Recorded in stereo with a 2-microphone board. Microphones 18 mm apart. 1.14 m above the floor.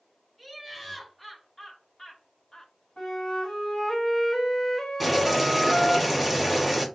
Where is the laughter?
15° left (ahead or behind), 2 m; by 2.7 s 50° left (ahead or behind), 0.7 m.